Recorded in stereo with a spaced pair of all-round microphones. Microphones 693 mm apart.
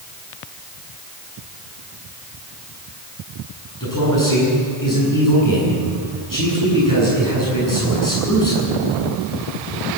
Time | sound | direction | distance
3.8 | a man speaking | 25° left (ahead or behind) | 9 m